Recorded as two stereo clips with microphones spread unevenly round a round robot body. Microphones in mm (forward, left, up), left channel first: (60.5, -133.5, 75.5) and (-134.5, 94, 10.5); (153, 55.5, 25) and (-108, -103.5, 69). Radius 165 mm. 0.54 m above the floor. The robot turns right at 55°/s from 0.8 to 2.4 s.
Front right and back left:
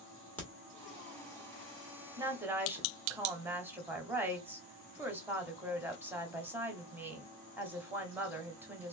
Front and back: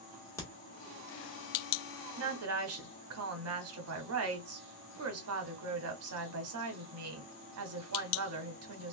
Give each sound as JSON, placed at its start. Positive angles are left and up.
{"t": 0.4, "sound": "a crack", "azimuth_deg": 55, "distance_m": 1.2}
{"t": 2.2, "sound": "a woman speaking", "azimuth_deg": -175, "distance_m": 1.1}